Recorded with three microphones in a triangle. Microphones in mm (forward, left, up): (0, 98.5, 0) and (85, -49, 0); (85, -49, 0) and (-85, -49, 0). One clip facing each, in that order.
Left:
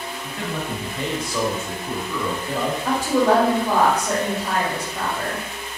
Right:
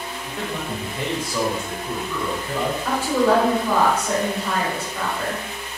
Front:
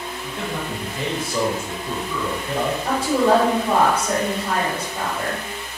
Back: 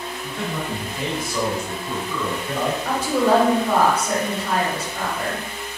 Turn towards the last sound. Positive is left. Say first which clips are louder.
# left 1 dB, front 1 dB
turn(degrees=50)